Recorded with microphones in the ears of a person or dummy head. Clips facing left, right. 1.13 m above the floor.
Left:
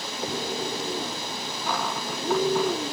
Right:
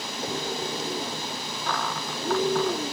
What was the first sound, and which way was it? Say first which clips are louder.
A cupboard door: left 1 dB; 10° left (ahead or behind).